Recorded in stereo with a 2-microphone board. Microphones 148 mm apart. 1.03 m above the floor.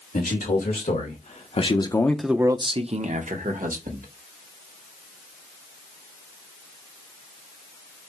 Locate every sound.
0.1 s a man speaking: 70° left (ahead or behind), 1.9 m; by 4.1 s 70° right (ahead or behind), 1.6 m